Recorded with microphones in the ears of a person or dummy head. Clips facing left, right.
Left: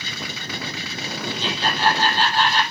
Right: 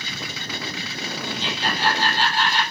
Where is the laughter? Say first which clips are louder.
Left 3 dB; 80° left, 5.5 m.